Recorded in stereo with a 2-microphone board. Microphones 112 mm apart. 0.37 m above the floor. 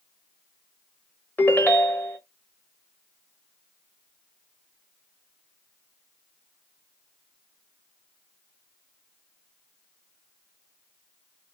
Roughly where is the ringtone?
Centre.